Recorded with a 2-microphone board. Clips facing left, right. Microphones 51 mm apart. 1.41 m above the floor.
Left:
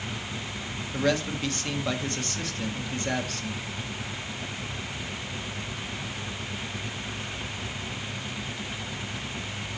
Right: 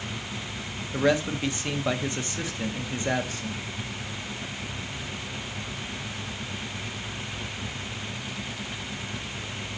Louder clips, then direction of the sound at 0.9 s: Right 3 dB; 15° right (ahead or behind).